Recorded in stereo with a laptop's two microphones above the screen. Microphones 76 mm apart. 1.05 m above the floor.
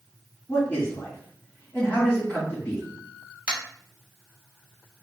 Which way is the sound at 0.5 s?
20° left (ahead or behind).